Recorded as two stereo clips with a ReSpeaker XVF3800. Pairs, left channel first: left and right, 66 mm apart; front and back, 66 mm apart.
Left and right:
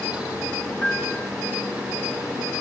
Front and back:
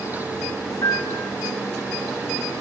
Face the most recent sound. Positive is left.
turn(degrees=30)